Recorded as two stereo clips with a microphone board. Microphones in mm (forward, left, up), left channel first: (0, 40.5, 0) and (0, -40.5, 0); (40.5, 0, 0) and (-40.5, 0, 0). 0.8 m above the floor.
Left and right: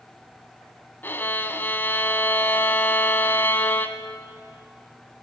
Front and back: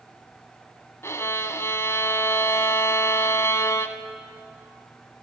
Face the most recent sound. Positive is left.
turn(degrees=35)